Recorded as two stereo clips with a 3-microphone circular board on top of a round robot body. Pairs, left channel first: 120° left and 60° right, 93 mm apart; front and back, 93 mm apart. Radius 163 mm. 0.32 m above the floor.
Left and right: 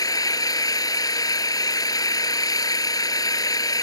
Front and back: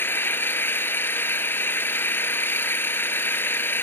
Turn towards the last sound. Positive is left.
turn(degrees=70)